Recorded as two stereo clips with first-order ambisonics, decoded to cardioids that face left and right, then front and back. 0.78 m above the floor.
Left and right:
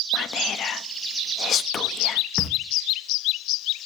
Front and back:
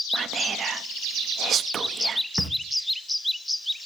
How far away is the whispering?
About 0.7 m.